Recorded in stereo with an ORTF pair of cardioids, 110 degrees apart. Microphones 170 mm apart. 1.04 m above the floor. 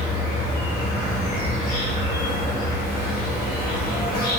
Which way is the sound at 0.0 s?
65° left.